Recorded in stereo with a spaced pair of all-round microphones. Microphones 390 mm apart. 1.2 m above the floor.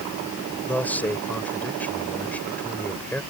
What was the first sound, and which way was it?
A man speaking, 5° left (ahead or behind).